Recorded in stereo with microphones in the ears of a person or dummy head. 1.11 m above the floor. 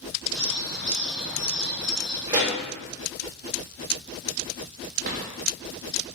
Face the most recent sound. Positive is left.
turn(degrees=-45)  # may be behind; listen again after turning